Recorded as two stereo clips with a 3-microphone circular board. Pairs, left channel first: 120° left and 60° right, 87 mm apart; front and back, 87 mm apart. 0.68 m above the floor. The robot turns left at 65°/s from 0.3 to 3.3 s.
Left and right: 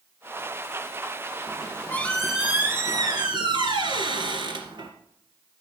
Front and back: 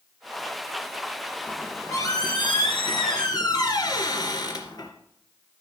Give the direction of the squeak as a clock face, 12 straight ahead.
9 o'clock.